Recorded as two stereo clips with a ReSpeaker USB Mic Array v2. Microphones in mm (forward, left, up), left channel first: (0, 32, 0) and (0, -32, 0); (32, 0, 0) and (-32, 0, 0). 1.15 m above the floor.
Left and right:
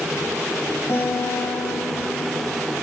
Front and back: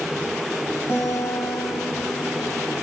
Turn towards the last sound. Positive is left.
turn(degrees=45)